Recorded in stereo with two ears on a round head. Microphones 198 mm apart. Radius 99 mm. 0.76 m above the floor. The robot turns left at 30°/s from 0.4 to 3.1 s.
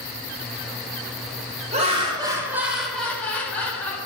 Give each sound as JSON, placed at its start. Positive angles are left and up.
{"t": 1.7, "sound": "laughter", "azimuth_deg": -145, "distance_m": 3.5}